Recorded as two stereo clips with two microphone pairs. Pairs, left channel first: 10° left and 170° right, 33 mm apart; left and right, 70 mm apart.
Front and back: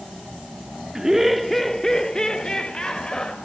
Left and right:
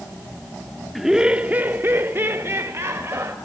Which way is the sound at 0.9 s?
165° right.